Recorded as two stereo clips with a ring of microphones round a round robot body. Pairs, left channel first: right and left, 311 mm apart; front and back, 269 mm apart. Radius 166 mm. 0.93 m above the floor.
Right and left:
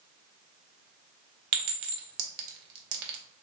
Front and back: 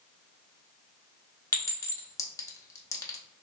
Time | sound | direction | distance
1.5 | a clink | 80° left | 0.7 m